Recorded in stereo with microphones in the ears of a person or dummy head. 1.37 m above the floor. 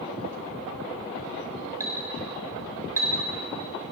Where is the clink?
20° right (ahead or behind), 4 m.